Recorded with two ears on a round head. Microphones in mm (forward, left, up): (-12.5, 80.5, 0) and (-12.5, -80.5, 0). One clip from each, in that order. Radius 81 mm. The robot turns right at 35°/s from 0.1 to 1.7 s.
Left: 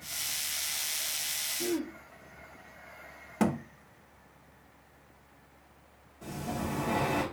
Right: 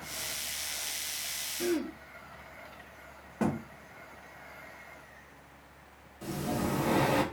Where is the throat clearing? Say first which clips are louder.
Right 5 dB; 30° right (ahead or behind), 0.5 m; by 1.9 s 35° right (ahead or behind), 0.5 m.